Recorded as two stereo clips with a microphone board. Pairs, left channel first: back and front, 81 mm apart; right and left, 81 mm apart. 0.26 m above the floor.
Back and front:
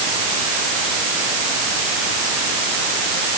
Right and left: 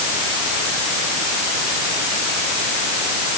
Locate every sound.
Only background noise.